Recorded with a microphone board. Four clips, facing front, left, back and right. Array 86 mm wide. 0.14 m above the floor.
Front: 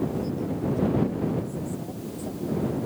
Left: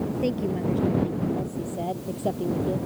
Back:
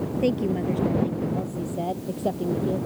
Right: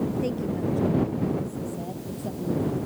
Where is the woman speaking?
165° left; by 2.9 s 140° left.